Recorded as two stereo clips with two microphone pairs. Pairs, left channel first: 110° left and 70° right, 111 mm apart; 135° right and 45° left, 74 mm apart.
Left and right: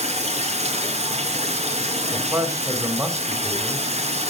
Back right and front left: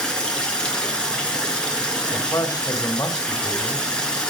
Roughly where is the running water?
Ahead right.